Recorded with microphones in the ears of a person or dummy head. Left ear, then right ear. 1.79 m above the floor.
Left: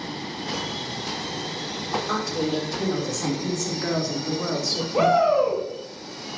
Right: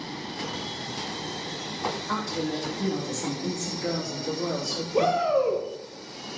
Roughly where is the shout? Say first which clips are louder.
Left 4 dB; left.